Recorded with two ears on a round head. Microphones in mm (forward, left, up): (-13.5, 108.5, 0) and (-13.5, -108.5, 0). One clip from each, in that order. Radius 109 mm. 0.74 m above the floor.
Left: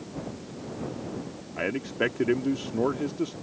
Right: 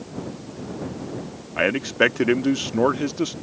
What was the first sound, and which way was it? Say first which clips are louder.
A man speaking: right 9 dB; 35° right (ahead or behind).